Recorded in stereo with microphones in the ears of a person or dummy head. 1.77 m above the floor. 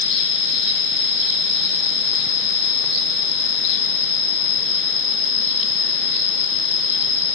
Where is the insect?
25° right (ahead or behind), 1.3 m.